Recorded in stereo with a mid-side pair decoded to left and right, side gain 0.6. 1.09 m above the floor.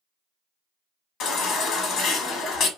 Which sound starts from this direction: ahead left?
A baby crying, at 1.2 s.